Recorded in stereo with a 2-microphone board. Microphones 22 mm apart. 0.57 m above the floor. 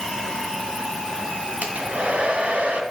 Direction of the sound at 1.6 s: 80° right.